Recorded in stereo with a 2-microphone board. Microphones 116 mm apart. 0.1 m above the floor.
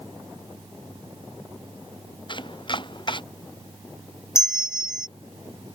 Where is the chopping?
40° left (ahead or behind).